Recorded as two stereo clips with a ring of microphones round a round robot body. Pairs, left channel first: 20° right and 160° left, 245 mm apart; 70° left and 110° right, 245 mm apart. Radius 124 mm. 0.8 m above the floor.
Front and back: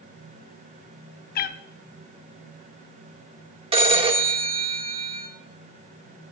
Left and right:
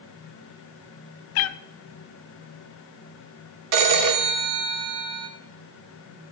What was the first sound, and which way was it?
A cat meowing, 30° left.